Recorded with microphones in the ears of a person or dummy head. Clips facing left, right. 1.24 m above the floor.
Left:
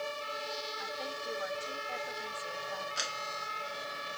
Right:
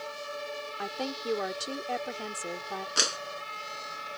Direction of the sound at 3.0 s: 80° right.